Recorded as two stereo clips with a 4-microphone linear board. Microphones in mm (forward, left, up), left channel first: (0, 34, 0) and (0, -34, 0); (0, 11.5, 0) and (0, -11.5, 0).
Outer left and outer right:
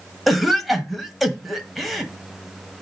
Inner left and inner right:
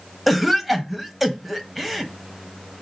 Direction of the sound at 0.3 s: Centre (ahead or behind).